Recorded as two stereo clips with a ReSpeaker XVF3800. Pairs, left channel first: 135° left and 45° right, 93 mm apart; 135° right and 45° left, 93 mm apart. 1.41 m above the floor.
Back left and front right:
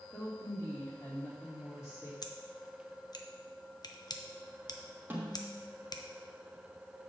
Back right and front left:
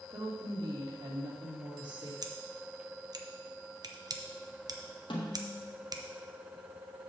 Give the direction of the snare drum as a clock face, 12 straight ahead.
4 o'clock.